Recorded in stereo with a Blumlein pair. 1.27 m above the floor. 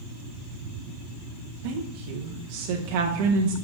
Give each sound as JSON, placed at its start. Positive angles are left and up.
{"t": 1.6, "sound": "a woman speaking", "azimuth_deg": -45, "distance_m": 0.7}